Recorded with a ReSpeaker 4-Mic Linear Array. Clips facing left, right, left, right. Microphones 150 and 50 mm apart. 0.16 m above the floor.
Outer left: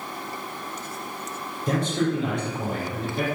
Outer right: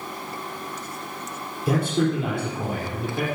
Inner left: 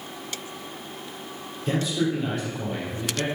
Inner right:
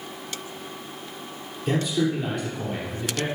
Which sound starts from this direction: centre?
A man speaking, at 1.7 s.